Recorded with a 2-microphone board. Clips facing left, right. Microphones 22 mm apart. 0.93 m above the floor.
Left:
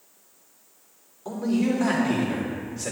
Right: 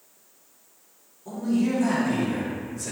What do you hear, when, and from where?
1.2 s a man speaking: 55° left (ahead or behind), 3 m; by 2.9 s 35° left (ahead or behind), 3 m